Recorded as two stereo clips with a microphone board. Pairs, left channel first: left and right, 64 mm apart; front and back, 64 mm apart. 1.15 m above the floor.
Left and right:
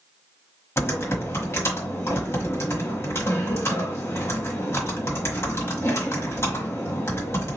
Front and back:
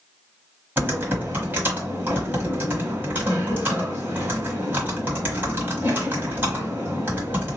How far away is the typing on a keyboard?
About 1.8 m.